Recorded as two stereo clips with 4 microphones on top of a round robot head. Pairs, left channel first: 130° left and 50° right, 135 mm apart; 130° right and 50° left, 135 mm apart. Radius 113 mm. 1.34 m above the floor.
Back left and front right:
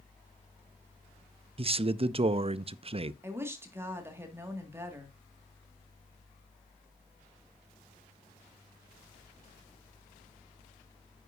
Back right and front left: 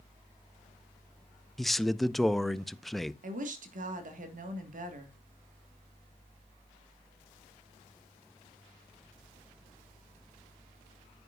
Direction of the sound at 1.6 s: 40° right.